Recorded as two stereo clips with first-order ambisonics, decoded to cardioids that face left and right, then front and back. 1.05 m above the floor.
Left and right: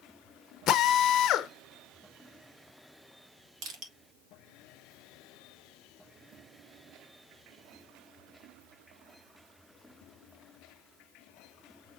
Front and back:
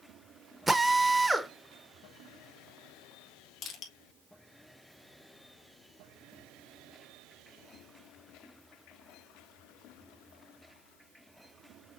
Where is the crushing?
55° right, 1.6 m.